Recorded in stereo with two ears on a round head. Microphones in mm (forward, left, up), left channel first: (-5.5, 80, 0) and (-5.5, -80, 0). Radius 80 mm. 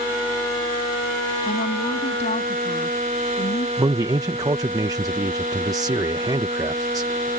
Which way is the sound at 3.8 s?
20° right (ahead or behind).